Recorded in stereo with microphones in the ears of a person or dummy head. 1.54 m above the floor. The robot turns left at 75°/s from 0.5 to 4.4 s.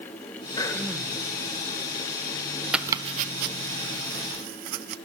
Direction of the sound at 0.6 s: 25° left.